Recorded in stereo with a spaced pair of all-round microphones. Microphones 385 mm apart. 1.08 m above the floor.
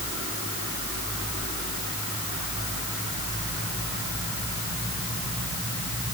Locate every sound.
Only background noise.